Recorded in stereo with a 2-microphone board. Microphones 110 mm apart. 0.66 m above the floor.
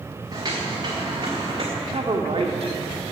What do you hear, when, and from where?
0.3 s footsteps: 35° right (ahead or behind), 4.5 m; by 1.6 s 45° right (ahead or behind), 4.5 m
1.8 s a man speaking: 60° right (ahead or behind), 1.7 m